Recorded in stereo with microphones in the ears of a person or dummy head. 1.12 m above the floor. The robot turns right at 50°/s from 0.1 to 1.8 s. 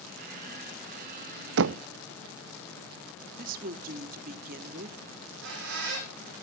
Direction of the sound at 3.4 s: 55° right (ahead or behind).